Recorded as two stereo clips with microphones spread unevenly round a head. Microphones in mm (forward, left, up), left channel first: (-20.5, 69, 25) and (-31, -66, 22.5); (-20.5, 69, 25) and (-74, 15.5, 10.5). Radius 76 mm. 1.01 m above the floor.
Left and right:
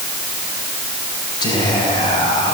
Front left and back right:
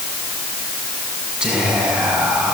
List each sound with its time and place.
1.4 s whispering: 145° left, 8 m